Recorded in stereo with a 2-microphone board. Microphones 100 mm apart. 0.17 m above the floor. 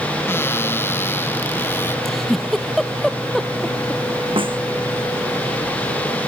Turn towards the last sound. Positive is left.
turn(degrees=-60)  # may be behind; listen again after turning